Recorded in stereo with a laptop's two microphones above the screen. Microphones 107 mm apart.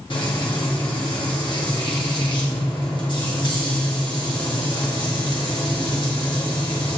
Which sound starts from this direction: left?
Frying, at 0.1 s.